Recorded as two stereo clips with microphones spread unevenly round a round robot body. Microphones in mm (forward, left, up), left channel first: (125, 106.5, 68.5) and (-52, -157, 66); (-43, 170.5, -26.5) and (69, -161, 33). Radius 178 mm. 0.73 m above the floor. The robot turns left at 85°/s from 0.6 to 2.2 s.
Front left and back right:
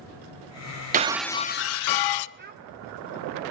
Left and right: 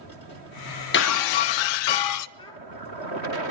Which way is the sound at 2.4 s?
Straight behind.